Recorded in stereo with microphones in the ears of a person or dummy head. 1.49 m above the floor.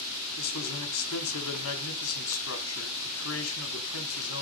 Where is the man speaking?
85° left, 3.5 m.